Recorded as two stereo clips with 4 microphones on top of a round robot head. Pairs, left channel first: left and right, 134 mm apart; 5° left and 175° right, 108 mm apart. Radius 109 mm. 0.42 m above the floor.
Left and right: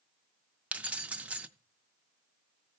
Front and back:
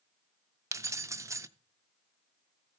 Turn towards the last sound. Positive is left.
turn(degrees=-160)